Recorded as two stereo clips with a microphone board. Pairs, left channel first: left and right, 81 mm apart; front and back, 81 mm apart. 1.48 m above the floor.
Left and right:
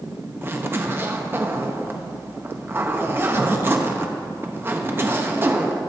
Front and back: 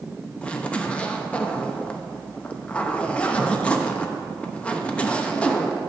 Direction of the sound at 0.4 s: 60° right.